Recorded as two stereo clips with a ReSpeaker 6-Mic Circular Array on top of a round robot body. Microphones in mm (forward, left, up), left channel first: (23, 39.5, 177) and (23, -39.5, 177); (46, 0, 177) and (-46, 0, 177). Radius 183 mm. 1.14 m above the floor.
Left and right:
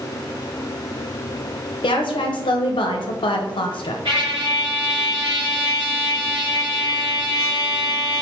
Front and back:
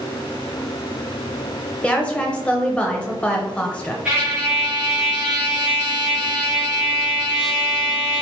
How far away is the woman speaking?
About 0.6 m.